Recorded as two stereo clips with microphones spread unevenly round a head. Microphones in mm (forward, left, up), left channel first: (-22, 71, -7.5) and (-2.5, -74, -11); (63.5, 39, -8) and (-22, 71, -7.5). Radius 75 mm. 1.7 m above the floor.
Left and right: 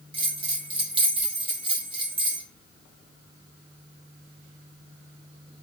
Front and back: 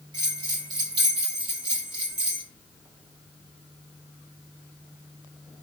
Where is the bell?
140° right, 2 m.